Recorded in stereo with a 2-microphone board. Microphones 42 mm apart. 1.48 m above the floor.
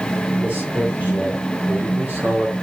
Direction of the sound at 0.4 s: 45° right (ahead or behind).